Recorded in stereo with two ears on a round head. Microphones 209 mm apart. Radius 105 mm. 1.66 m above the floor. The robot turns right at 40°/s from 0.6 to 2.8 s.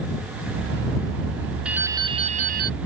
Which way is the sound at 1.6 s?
175° right.